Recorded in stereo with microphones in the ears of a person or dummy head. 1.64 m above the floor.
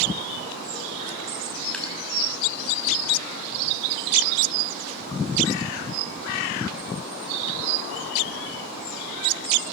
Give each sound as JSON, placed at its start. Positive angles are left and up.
{"t": 1.7, "sound": "dripping", "side_deg": 10, "distance_m": 5.5}